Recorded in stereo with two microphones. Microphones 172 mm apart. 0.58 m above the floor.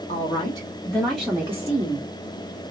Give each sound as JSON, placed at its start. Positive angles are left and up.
{"t": 0.1, "sound": "a woman speaking", "side_deg": 40, "distance_m": 1.5}